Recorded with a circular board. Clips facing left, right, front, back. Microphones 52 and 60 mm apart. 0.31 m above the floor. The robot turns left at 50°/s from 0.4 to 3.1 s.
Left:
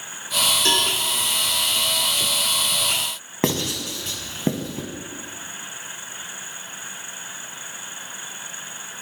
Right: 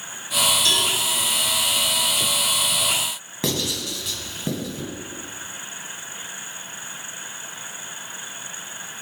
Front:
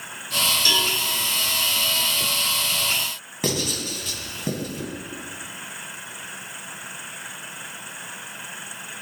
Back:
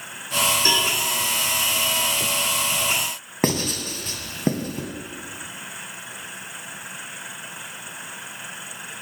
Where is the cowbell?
135° left, 1.5 m; by 0.9 s 120° left, 1.5 m.